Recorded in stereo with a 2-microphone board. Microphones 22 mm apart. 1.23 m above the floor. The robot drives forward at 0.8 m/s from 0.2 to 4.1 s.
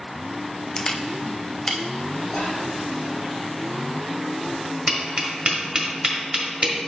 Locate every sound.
0.8 s a camera shutter: 40° left (ahead or behind), 0.6 m; by 1.8 s 20° left (ahead or behind), 1.0 m
2.3 s whispering: 40° left (ahead or behind), 3 m; by 2.6 s 35° left (ahead or behind), 3 m
4.9 s tapping: 55° right (ahead or behind), 1.5 m